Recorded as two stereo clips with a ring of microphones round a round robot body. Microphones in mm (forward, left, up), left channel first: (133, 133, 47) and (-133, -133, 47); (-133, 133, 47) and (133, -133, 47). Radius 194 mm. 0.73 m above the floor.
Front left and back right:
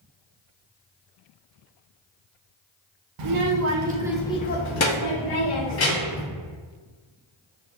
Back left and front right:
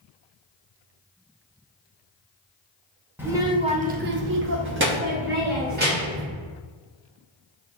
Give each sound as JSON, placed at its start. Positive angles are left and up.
{"t": 3.2, "sound": "a child speaking", "azimuth_deg": -130, "distance_m": 0.8}